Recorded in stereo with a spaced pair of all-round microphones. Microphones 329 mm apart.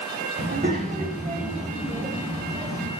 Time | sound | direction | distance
0.4 | a child speaking | 35° right (ahead or behind) | 3 m